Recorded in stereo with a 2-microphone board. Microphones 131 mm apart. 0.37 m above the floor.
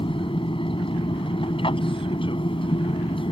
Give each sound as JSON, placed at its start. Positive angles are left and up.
{"t": 0.0, "sound": "an aircraft", "side_deg": 40}